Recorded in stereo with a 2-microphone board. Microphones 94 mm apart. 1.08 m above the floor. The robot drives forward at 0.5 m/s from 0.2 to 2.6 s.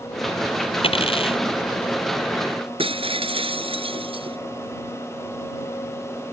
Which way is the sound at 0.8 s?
80° left.